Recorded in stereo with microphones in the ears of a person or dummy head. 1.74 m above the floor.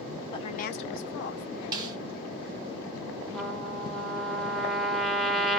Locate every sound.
0.3 s a woman speaking: 25° left (ahead or behind), 0.8 m; by 1.4 s 55° left (ahead or behind), 1.0 m
1.7 s a snare drum: 20° right (ahead or behind), 0.9 m
3.3 s a trumpet: centre (ahead or behind), 0.8 m